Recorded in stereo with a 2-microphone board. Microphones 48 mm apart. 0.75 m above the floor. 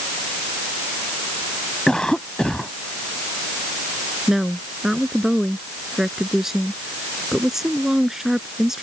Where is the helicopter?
I don't hear a helicopter.